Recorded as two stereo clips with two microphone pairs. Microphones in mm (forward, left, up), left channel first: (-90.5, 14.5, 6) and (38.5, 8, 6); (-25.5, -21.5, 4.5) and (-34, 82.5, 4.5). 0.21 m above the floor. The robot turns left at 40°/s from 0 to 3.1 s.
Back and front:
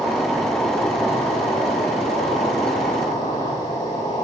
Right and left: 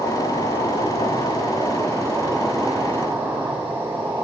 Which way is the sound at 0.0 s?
75° right.